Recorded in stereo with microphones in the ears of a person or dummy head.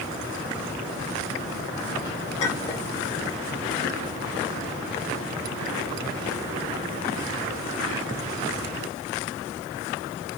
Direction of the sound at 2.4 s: 40° left (ahead or behind).